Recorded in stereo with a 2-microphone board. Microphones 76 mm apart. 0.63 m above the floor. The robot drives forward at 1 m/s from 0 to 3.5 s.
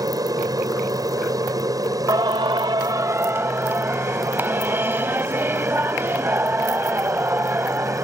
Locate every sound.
0.0 s an aircraft: 55° right (ahead or behind); by 8.0 s 50° right (ahead or behind)
2.1 s singing: 55° right (ahead or behind); by 8.0 s 30° right (ahead or behind)